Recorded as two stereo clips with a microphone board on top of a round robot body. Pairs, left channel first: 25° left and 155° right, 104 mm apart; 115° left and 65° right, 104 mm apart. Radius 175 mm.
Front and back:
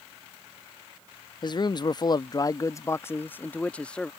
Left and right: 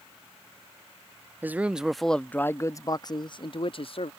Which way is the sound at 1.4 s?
Straight ahead.